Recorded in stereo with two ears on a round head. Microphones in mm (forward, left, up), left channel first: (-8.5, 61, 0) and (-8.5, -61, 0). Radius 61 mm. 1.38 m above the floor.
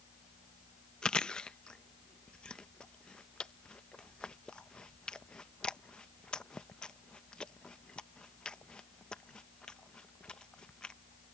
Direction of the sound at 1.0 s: 5° left (ahead or behind).